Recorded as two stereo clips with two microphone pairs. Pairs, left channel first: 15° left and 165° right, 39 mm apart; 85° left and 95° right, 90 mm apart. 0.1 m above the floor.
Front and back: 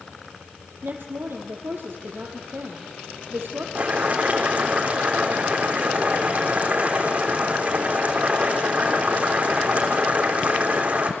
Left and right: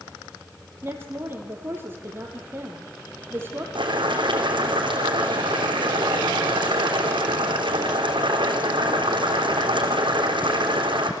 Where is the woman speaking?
160° right, 3 m.